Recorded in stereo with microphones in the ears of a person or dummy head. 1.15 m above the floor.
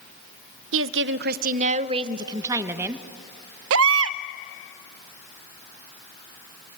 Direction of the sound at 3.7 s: 70° right (ahead or behind).